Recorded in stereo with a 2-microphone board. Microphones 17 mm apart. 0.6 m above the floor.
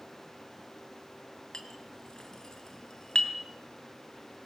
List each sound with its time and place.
1.5 s a clink: 45° left (ahead or behind), 3 m